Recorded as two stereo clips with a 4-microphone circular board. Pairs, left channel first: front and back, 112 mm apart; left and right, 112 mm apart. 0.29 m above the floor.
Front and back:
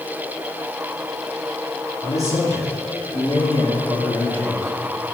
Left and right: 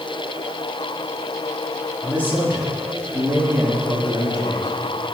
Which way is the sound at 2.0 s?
15° right.